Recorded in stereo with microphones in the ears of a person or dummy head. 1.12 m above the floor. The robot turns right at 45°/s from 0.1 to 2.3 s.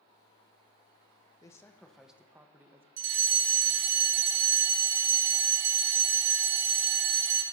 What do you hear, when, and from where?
1.4 s a man speaking: 160° left, 0.9 m; by 2.9 s 160° right, 0.9 m
3.0 s a fire alarm: 40° right (ahead or behind), 1.9 m